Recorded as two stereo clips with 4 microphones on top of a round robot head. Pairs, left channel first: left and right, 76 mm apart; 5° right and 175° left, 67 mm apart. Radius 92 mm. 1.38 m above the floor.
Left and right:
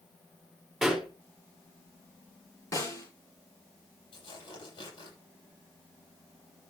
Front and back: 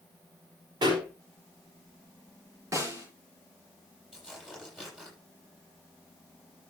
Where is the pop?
Straight behind, 5.5 m.